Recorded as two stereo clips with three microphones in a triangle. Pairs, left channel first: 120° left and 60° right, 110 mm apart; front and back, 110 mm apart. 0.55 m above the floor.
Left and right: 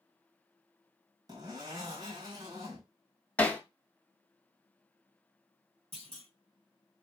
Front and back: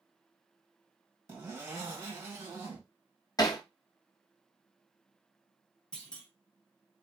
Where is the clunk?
80° right, 1.7 m.